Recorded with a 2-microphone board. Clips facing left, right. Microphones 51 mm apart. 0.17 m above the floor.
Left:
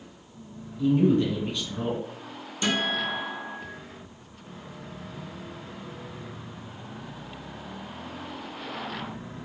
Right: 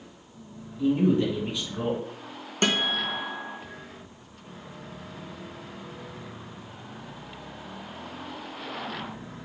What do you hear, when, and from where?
0.8 s a man speaking: 10° right (ahead or behind), 2.0 m
2.6 s a guitar: 55° right (ahead or behind), 0.7 m